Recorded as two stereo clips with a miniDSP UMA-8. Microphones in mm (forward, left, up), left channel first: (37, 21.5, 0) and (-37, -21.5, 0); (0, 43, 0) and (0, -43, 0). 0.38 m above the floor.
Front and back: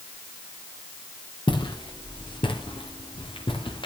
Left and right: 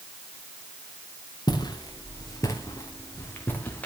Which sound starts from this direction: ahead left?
Footsteps, at 1.5 s.